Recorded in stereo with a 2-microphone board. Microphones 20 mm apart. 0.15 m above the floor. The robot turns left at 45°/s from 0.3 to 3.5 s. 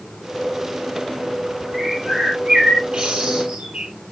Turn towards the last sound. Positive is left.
turn(degrees=-95)